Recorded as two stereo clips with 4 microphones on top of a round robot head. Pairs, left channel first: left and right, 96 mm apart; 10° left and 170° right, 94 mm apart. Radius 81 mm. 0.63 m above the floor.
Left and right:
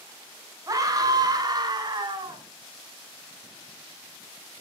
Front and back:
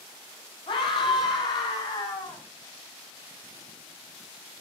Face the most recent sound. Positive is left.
turn(degrees=-50)